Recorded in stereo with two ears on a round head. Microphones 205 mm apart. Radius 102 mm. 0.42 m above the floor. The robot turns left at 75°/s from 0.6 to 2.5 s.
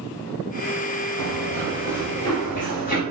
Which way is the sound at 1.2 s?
70° right (ahead or behind).